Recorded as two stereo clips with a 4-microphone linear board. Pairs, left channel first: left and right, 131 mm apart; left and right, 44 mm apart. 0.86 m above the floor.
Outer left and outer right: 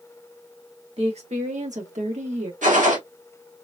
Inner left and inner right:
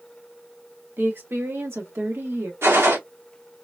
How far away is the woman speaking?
About 1.5 m.